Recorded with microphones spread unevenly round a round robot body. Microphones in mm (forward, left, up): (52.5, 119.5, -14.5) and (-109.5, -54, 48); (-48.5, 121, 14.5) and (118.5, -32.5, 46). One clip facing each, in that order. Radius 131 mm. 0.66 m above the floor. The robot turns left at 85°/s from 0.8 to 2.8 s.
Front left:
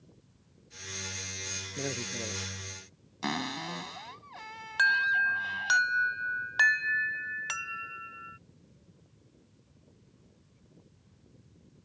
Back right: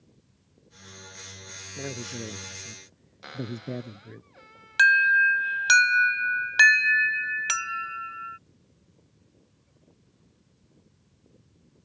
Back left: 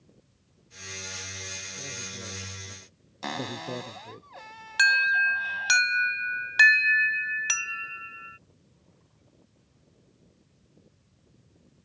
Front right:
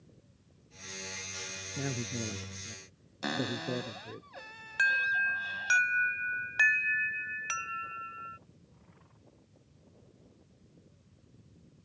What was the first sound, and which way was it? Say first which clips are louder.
A man speaking: back right 1 dB, front right 8 dB; 30° right.